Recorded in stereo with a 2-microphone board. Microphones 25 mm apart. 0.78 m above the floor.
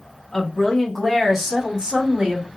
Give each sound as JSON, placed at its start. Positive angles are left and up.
{"t": 0.3, "sound": "a woman speaking", "side_deg": 25, "distance_m": 1.4}